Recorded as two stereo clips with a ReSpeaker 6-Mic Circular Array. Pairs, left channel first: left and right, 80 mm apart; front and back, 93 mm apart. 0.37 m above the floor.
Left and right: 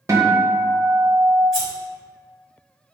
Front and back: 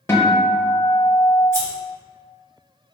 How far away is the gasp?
I don't hear a gasp.